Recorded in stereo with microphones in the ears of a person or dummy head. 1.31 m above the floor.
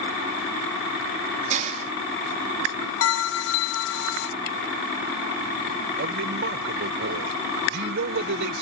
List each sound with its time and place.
1.5 s a hiss: 40° right (ahead or behind)
3.0 s a bell: 75° left (ahead or behind)
6.0 s a man speaking: 70° right (ahead or behind)